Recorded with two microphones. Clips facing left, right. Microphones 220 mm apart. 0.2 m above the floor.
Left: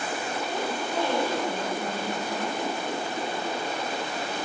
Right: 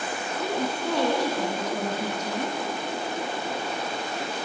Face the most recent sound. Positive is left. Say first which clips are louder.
# right 5 dB
turn(degrees=-80)